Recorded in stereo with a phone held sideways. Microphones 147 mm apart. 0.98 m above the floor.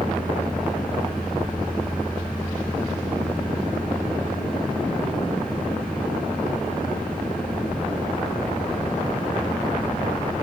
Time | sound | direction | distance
0.0 | a fan | 90° left | 4.5 m